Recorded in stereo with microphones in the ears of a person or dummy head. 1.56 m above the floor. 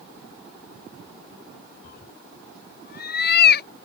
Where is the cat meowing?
55° left (ahead or behind); by 3.7 s 60° left (ahead or behind).